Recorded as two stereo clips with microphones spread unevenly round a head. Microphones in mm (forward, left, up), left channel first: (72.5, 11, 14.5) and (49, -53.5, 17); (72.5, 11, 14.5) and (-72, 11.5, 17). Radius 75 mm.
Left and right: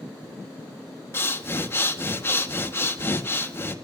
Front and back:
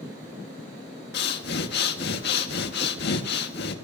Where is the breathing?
15° left, 1.8 m.